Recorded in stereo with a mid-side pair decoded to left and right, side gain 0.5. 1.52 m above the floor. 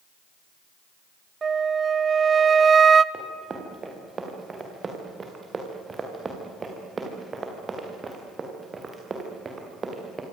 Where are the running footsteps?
30° right, 7.5 m.